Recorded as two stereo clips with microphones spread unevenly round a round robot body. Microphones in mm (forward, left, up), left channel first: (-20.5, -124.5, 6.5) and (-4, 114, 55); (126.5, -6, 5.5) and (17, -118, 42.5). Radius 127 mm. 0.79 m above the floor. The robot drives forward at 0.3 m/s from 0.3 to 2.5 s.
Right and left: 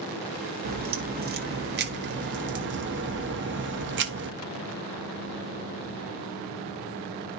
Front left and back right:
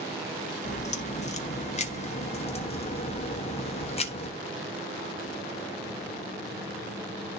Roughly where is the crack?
Ahead left.